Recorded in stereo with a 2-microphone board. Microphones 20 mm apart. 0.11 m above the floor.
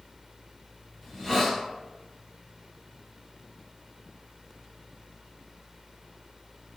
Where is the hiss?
15° left (ahead or behind), 1.3 m.